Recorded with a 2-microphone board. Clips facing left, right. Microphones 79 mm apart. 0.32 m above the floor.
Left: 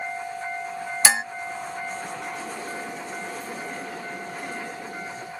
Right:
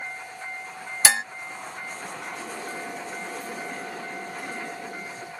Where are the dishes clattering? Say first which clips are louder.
Left 1 dB; 10° left (ahead or behind).